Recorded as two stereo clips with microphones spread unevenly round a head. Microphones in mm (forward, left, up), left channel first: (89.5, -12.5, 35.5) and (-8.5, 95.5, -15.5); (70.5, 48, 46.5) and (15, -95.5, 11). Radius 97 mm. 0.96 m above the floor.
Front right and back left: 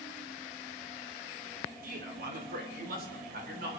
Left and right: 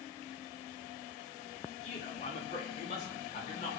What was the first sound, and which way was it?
A man speaking, 125° left.